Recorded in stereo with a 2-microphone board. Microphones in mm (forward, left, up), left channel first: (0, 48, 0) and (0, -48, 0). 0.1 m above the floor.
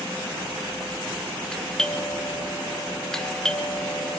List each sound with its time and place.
1.5 s a doorbell: 5° left (ahead or behind), 2 m